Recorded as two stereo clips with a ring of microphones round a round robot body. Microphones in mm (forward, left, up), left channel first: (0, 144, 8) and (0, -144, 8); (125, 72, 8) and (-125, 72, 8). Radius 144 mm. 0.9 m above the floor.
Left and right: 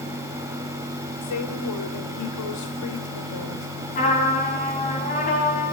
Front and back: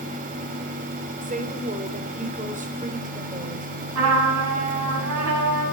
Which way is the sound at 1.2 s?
120° left.